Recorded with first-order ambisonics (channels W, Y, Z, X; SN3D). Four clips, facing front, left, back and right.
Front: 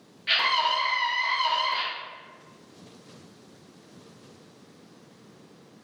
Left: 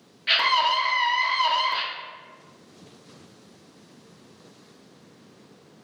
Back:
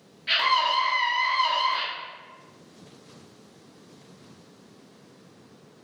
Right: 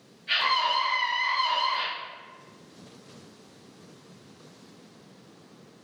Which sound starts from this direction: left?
A scream, at 0.3 s.